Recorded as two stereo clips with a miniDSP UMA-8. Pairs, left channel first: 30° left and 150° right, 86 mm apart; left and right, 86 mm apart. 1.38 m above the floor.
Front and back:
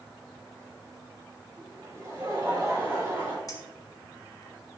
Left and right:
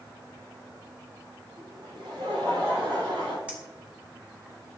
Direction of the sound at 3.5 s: 15° right.